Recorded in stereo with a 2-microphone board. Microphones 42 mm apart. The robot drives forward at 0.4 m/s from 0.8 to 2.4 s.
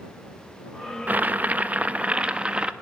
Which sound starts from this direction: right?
Boiling, at 1.1 s.